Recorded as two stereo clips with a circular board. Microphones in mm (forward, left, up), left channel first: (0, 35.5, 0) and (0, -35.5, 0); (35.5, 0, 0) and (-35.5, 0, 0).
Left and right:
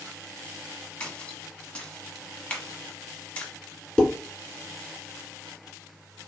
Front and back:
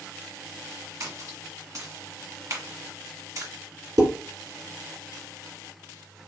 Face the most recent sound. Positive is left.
turn(degrees=165)